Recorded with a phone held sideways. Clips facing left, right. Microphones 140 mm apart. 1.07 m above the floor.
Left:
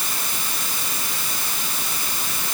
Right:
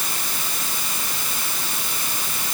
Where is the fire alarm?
I don't hear a fire alarm.